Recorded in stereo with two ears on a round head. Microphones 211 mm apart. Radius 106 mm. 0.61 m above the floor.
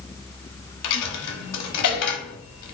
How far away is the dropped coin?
About 1.1 m.